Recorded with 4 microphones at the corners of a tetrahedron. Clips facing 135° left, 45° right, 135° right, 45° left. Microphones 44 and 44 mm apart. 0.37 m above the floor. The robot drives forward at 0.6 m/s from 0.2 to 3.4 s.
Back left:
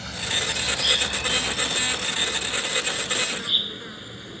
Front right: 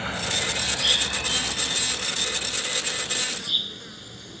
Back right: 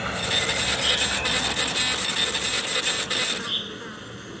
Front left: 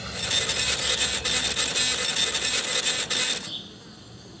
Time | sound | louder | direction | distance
0.0 | an insect | front right 1 dB, back right 4 dB | 100° right | ?